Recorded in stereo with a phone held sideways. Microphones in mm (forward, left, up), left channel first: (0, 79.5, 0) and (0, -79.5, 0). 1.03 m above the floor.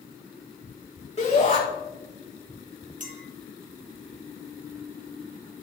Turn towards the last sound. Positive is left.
turn(degrees=-50)  # may be behind; listen again after turning